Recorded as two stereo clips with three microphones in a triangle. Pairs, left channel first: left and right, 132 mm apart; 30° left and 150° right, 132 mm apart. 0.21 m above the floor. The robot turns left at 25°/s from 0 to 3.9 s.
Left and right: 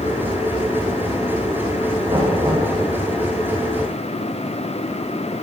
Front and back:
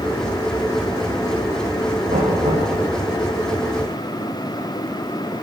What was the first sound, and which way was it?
Knocking, 140° right.